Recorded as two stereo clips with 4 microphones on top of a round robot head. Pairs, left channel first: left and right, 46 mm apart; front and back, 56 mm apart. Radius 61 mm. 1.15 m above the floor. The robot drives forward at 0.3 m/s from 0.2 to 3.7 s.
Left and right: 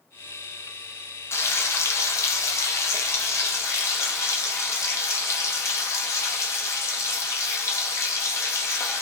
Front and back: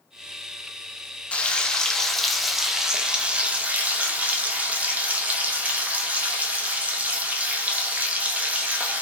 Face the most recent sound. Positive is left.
turn(degrees=115)